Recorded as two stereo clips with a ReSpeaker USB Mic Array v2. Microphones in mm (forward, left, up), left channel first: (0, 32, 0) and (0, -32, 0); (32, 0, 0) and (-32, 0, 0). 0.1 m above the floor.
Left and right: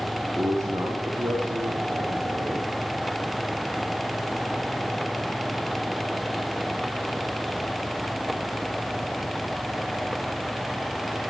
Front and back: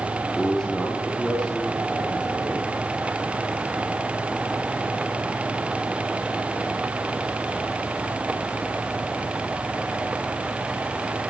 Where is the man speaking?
80° right, 4.5 m.